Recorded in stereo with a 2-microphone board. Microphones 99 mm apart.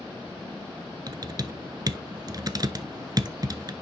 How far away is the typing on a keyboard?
About 0.6 m.